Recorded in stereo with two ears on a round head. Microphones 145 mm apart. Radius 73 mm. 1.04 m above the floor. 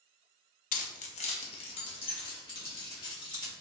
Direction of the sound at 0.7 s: 50° left (ahead or behind).